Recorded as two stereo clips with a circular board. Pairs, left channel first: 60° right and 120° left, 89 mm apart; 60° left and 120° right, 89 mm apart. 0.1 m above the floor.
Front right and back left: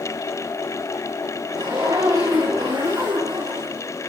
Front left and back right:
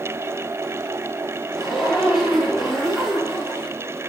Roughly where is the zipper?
Behind left.